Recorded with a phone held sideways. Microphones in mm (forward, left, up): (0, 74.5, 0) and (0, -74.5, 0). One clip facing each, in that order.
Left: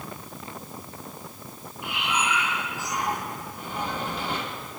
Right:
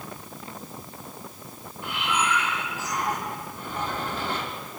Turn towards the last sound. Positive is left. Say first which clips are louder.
# right 1 dB
turn(degrees=15)  # may be behind; listen again after turning